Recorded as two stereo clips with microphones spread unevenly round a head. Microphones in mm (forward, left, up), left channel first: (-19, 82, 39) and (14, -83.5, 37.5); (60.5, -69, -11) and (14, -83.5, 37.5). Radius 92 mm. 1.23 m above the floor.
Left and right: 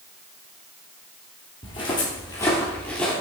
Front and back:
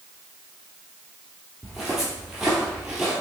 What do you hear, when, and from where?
1.6 s footsteps: 155° left, 2 m; by 3.1 s 175° right, 1.9 m